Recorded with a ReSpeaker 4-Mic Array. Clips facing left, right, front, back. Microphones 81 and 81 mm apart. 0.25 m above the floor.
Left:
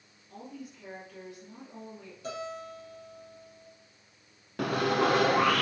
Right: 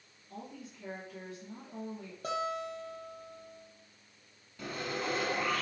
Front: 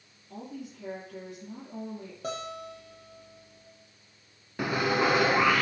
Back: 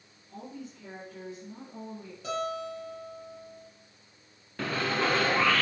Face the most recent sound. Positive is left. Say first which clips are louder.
# left 11 dB, front 3 dB
turn(degrees=75)